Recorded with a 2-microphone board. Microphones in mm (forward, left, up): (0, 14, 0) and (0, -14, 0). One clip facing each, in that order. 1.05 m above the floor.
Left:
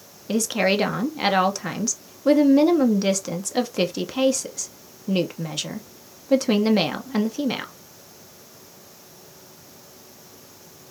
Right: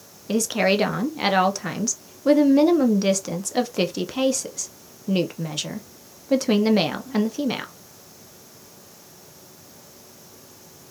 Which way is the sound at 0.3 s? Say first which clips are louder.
Right 1 dB; centre (ahead or behind).